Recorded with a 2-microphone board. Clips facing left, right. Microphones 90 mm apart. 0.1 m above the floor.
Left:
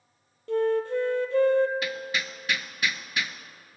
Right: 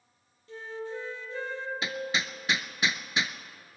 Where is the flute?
65° left (ahead or behind), 0.6 m.